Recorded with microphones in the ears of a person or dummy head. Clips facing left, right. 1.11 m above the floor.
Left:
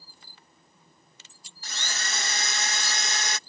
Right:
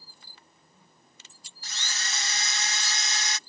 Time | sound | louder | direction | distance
1.6 | a drill | left 3 dB | 50° left (ahead or behind) | ?